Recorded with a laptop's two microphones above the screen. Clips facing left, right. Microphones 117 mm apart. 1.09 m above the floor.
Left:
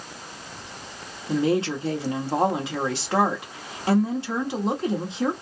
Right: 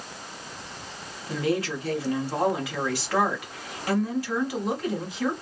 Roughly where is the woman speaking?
Left.